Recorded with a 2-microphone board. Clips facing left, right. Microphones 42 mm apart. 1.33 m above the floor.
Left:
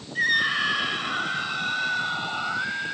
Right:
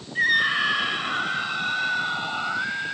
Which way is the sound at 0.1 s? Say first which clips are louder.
Right 2 dB; 10° right (ahead or behind).